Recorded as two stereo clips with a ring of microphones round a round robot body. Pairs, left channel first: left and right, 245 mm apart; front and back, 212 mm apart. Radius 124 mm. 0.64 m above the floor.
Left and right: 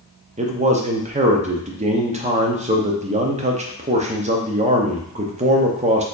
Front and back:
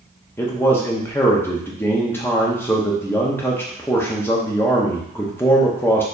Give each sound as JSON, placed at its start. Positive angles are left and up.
{"t": 0.4, "sound": "a man speaking", "azimuth_deg": -70, "distance_m": 0.6}